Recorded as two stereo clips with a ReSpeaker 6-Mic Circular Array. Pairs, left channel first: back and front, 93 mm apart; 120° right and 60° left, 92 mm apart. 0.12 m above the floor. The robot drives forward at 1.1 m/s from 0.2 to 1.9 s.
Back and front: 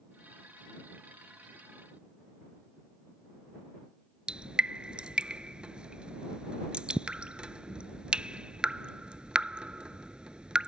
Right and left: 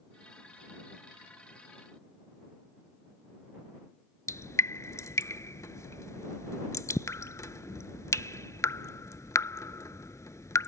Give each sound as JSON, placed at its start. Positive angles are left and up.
{"t": 4.3, "sound": "dripping", "azimuth_deg": -75}